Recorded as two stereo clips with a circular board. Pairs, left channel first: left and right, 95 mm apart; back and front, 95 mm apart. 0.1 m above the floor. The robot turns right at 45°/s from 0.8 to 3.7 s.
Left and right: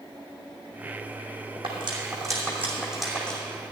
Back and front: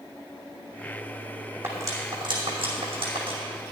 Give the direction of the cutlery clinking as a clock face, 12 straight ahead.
2 o'clock.